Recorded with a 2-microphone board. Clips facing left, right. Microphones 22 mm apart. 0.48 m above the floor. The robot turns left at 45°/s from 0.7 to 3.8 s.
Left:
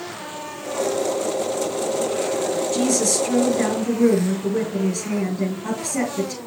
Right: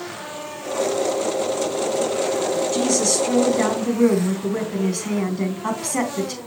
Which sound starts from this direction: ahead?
A woman speaking, at 2.7 s.